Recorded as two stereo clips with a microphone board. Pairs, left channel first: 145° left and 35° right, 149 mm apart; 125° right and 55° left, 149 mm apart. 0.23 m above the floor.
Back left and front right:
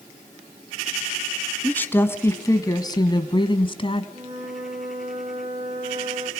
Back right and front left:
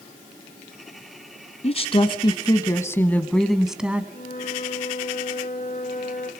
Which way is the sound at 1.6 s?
140° right.